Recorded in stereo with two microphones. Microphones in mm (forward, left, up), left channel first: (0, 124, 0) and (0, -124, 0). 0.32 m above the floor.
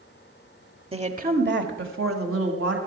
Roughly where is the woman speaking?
Right.